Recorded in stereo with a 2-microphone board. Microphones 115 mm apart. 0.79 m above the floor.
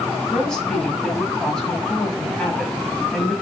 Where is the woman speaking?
5° left (ahead or behind), 5.5 m.